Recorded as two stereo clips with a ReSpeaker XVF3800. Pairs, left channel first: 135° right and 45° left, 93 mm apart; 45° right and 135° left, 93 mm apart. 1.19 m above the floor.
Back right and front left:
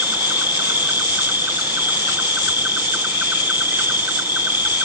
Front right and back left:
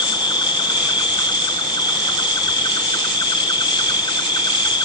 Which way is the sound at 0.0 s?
20° right.